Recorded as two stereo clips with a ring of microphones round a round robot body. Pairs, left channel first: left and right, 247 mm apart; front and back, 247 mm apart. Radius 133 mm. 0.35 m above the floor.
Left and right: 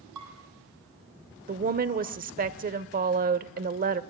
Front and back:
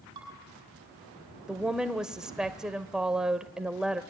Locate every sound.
0.1 s dishes clattering: 105° right, 7.5 m
1.5 s a woman speaking: 95° right, 0.9 m